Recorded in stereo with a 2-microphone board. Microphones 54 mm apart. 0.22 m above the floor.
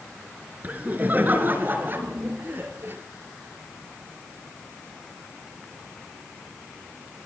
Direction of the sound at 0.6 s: 30° right (ahead or behind).